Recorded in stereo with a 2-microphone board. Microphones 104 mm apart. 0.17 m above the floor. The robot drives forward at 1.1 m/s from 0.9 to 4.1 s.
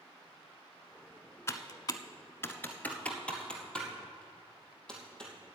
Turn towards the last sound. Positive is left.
turn(degrees=10)  # may be behind; listen again after turning